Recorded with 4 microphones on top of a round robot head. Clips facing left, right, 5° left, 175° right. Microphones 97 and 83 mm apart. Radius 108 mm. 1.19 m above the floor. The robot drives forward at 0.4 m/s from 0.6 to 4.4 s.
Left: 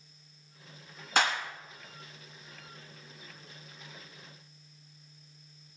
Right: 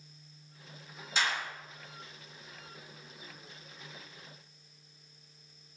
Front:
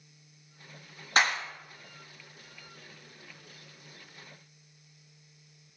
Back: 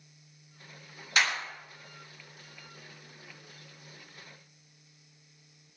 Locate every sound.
1.2 s a clap: 55° left, 3 m; by 1.4 s 60° left, 3 m